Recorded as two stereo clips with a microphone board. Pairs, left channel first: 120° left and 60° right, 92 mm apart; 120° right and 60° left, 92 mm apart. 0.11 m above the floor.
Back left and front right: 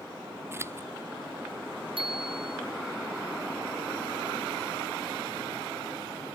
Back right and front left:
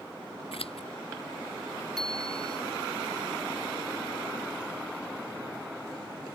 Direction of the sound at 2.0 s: 35° right.